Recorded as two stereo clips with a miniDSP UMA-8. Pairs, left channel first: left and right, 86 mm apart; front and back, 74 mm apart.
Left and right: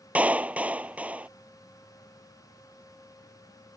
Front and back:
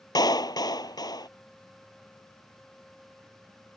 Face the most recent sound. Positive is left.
turn(degrees=-20)